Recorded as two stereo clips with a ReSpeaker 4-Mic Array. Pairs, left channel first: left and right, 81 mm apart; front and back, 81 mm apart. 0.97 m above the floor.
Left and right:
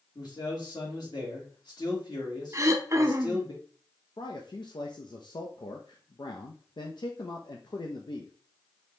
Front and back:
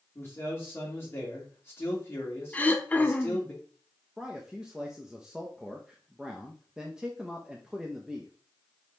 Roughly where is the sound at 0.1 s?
Ahead left.